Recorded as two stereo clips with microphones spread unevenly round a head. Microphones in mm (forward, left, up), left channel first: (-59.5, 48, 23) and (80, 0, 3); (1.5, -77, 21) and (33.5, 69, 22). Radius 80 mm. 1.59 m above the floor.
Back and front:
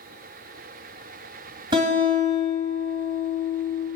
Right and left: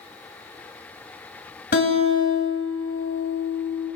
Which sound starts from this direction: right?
A guitar, at 1.7 s.